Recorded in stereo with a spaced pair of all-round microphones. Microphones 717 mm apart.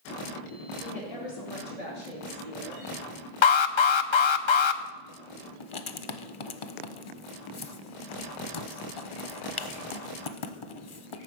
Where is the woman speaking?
55° left (ahead or behind), 2 m; by 2.9 s 70° left (ahead or behind), 3 m.